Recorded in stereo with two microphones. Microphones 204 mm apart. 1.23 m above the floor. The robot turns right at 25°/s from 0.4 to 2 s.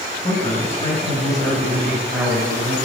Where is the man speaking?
140° left, 9 m; by 2.8 s straight behind, 9 m.